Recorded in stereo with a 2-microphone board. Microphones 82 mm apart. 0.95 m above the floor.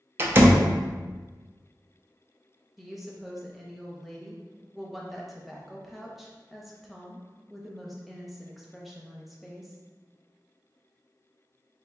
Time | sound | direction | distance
0.2 | a door slam | 30° right (ahead or behind) | 0.6 m
2.8 | a woman speaking | centre (ahead or behind) | 0.8 m